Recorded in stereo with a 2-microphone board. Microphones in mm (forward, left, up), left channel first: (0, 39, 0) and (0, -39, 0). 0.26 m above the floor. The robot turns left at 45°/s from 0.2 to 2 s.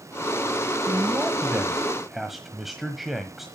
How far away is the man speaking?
About 1.3 m.